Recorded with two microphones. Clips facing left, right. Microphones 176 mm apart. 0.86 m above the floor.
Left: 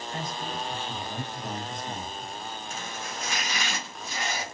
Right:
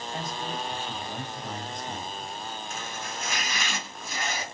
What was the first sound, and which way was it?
A man speaking, 25° right (ahead or behind).